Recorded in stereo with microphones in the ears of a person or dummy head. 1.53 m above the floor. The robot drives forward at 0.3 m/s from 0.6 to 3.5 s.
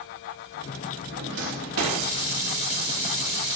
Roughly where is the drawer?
Right.